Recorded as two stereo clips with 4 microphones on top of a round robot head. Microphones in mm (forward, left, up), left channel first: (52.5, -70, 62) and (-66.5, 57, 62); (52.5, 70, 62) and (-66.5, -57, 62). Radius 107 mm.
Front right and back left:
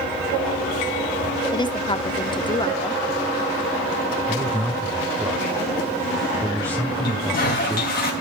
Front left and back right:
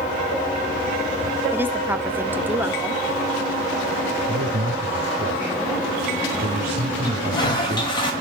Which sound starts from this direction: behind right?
A man speaking, at 4.3 s.